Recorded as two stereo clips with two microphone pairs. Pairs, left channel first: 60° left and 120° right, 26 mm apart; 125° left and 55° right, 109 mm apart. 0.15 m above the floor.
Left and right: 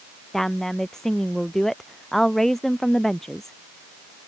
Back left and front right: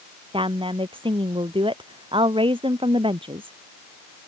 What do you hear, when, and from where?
0.3 s a woman speaking: 15° right